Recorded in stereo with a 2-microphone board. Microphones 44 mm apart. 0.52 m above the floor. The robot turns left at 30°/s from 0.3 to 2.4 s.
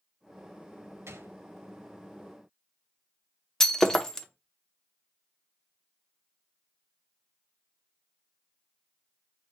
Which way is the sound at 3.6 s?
10° left (ahead or behind).